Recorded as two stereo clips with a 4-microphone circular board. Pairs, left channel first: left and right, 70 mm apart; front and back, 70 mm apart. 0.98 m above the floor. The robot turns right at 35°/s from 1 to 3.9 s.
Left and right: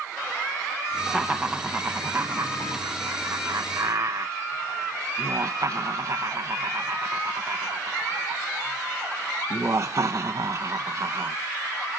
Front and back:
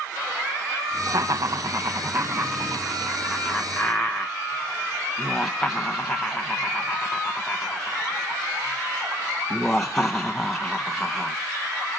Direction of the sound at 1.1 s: 175° left.